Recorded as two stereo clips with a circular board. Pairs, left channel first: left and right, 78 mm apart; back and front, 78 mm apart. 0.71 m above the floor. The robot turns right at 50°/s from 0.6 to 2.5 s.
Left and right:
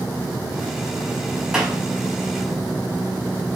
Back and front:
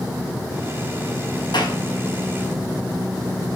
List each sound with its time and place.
1.5 s a clap: 175° right, 5.5 m; by 1.8 s 160° right, 5.5 m